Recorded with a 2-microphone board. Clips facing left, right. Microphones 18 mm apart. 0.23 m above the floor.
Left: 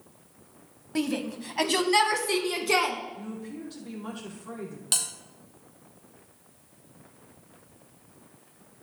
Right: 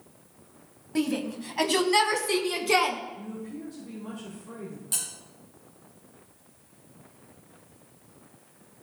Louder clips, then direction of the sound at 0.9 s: Right 1 dB; 10° left (ahead or behind).